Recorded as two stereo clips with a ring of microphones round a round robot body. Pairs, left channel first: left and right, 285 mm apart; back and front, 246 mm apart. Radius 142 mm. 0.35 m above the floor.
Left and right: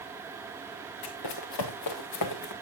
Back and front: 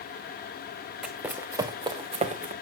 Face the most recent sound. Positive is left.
turn(degrees=55)